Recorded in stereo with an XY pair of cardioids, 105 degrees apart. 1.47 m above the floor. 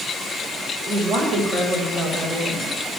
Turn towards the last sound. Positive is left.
turn(degrees=-60)